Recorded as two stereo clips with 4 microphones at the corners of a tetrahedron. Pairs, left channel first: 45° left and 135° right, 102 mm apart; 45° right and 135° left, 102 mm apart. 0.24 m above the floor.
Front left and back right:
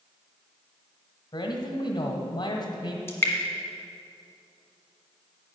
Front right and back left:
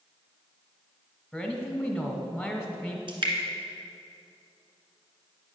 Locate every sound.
1.3 s a man speaking: 45° left, 1.3 m
3.1 s dripping: 105° left, 1.6 m